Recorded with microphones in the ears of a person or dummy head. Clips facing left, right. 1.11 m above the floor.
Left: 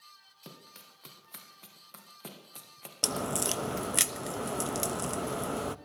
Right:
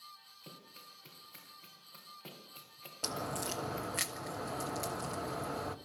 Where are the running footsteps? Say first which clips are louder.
Left 4 dB; 80° left, 5.5 m; by 3.9 s 65° left (ahead or behind), 2.5 m.